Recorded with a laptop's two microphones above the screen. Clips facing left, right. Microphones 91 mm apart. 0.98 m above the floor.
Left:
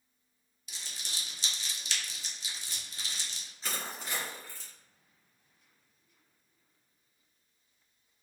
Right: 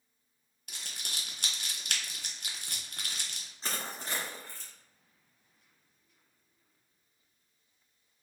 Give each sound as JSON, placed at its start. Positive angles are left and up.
{"t": 0.7, "sound": "crumpling", "side_deg": -55, "distance_m": 0.6}
{"t": 3.6, "sound": "crushing", "side_deg": -35, "distance_m": 1.6}